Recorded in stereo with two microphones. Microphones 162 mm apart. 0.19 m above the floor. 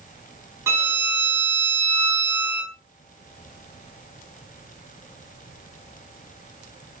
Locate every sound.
0.7 s a violin: 15° right (ahead or behind), 1.4 m